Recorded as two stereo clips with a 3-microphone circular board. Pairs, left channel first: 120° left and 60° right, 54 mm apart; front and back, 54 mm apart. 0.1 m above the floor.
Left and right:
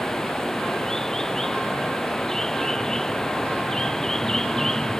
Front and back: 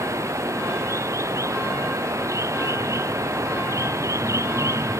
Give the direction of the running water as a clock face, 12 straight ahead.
5 o'clock.